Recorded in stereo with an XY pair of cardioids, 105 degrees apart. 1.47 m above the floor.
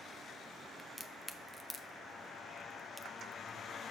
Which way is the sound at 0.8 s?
10° left.